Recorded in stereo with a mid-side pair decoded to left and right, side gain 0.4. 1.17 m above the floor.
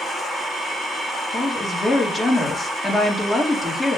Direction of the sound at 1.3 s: 25° left.